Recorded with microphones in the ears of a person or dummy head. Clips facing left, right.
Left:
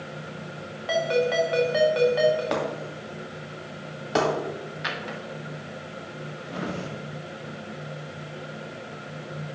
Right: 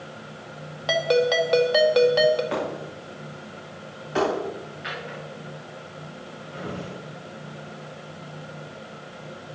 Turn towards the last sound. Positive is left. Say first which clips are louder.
# left 1 dB
turn(degrees=70)  # may be behind; listen again after turning